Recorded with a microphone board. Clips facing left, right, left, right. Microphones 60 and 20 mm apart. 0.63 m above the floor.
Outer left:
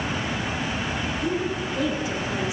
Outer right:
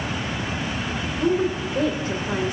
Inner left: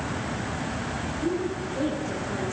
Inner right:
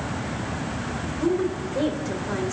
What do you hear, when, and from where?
1.2 s a woman speaking: 45° right (ahead or behind), 2.5 m